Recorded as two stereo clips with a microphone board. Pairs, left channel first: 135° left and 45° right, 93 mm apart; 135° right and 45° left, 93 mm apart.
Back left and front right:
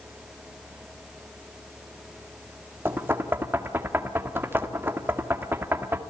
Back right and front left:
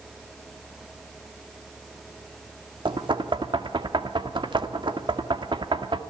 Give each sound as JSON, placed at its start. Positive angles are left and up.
{"t": 2.9, "sound": "knocking", "azimuth_deg": 20, "distance_m": 1.8}